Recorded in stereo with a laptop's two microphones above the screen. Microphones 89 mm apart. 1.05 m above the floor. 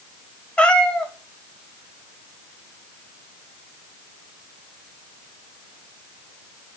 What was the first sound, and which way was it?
A cat meowing, 10° left (ahead or behind).